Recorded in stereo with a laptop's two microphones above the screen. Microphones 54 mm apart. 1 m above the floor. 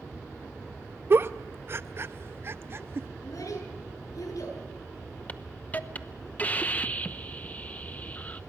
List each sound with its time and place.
1.1 s a giggle: 45° right (ahead or behind), 0.5 m
3.2 s a child speaking: 70° left (ahead or behind), 9 m
5.3 s a hiss: 25° left (ahead or behind), 0.8 m